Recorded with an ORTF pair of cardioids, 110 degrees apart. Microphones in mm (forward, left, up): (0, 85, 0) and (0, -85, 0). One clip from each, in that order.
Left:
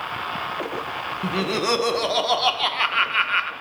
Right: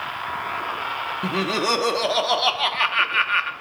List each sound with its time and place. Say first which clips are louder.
1.2 s laughter: even; 5° right, 0.7 m